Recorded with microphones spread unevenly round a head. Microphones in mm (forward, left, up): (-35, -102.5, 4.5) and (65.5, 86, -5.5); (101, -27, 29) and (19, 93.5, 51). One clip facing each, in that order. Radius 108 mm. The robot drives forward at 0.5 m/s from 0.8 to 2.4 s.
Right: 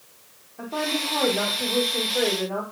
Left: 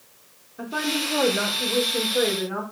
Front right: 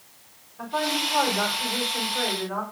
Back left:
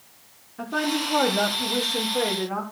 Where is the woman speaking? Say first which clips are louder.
Left 1 dB, back left 2 dB; 140° left, 5 m; by 2.6 s 145° left, 5.5 m.